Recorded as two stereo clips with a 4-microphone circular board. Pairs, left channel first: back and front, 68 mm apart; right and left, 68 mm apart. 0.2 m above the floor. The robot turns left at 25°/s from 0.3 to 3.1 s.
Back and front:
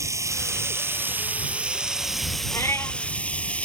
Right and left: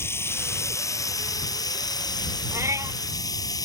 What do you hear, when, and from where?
0.0 s running water: 40° right; by 3.7 s 110° right
2.5 s a cat meowing: 140° left; by 3.0 s 125° left